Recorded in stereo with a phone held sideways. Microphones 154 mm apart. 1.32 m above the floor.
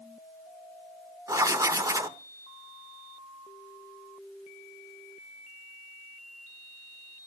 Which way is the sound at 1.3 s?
20° right (ahead or behind).